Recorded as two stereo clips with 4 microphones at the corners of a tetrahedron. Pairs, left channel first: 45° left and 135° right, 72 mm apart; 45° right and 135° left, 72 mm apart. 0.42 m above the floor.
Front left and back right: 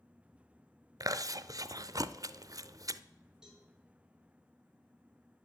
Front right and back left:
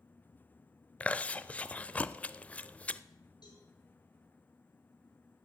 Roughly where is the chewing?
Right.